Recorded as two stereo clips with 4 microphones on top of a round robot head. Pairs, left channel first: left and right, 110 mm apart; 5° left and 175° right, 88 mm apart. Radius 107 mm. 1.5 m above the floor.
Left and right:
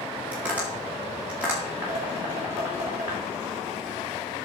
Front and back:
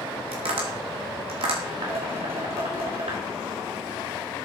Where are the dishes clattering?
160° right, 3 m.